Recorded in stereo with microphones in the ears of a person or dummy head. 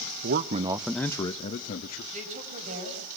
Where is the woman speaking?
40° right (ahead or behind), 7 m.